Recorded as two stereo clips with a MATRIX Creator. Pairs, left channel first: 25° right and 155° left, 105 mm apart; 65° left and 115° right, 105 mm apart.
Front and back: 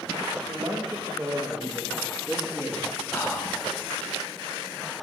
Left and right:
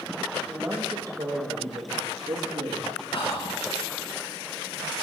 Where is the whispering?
45° left, 1.3 m.